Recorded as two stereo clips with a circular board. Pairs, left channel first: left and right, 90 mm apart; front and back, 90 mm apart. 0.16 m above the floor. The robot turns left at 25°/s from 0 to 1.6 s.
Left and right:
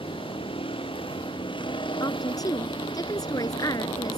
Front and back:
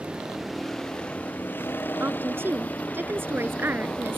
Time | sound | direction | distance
0.0 | a vehicle | 100° left | ?
2.0 | a woman speaking | 120° left | ?